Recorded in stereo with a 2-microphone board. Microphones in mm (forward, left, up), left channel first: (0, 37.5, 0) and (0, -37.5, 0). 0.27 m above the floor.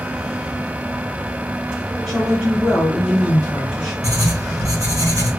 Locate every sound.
2.1 s a woman speaking: centre (ahead or behind), 1.4 m
4.0 s writing: 50° right (ahead or behind), 1.8 m